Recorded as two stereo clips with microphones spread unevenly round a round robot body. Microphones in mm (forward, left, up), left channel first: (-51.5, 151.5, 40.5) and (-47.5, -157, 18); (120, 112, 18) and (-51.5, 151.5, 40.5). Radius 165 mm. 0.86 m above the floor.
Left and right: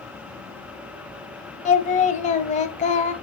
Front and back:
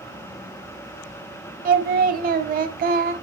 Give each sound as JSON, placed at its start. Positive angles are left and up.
{"t": 1.6, "sound": "singing", "azimuth_deg": 155, "distance_m": 1.1}